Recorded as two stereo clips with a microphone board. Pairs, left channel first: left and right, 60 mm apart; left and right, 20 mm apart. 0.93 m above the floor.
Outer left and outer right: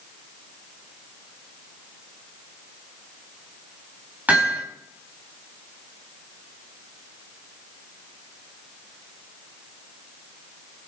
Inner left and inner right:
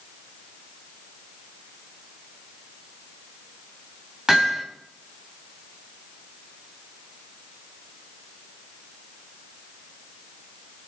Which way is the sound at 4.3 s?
25° right (ahead or behind).